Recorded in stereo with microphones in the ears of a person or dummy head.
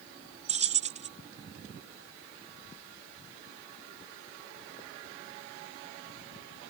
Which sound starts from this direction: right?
Keys jangling, at 0.5 s.